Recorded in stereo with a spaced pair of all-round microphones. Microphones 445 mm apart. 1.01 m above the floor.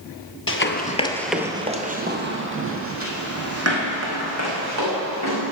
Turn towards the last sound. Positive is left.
turn(degrees=-35)  # may be behind; listen again after turning